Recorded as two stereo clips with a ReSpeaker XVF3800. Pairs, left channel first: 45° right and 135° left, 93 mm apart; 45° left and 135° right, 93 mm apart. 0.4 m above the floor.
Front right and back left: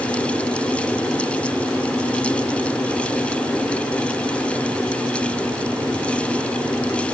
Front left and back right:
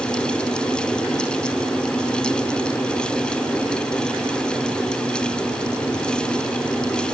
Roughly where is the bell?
No bell in this recording.